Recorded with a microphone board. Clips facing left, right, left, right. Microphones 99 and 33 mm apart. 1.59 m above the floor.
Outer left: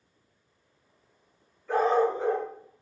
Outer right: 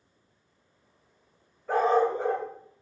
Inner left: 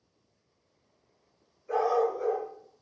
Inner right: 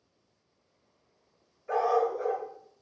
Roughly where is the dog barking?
Right.